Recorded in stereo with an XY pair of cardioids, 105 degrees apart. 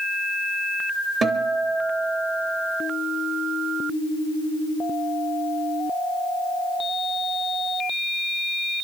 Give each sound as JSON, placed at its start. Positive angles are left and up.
{"t": 1.2, "sound": "a guitar", "azimuth_deg": -45, "distance_m": 2.0}